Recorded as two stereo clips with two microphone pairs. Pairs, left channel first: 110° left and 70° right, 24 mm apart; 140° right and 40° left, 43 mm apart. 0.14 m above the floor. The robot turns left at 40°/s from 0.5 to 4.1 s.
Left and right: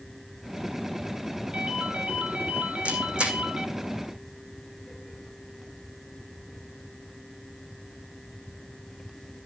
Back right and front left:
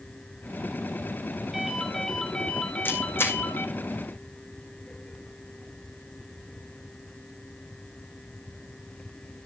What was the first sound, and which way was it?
A ringtone, 40° right.